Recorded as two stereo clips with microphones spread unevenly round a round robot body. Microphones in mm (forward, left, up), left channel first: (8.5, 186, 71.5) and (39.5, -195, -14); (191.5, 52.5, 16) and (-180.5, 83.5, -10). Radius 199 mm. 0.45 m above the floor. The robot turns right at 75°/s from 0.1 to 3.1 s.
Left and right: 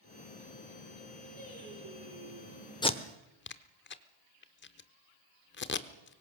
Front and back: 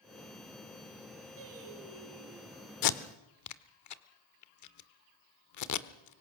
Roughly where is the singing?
Behind.